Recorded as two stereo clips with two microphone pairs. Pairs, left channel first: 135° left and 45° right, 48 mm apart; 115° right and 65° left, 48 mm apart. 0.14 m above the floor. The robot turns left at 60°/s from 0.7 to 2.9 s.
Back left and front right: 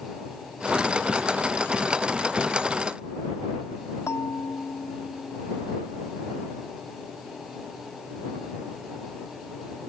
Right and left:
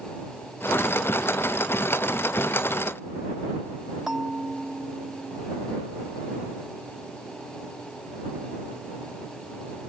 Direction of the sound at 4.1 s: 145° left.